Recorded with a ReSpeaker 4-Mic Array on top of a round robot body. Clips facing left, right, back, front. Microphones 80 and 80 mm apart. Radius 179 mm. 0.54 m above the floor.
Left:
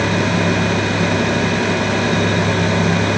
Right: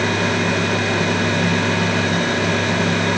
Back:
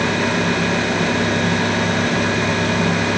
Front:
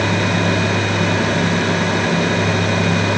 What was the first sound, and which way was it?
Only background noise.